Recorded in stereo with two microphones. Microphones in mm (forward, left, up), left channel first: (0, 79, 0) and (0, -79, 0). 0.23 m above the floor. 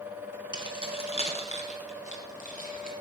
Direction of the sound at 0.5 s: 30° left (ahead or behind).